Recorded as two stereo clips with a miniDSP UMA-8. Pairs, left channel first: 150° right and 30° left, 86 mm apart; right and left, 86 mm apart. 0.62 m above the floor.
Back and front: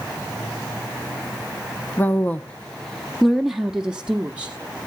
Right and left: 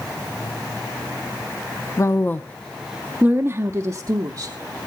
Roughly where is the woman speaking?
Right.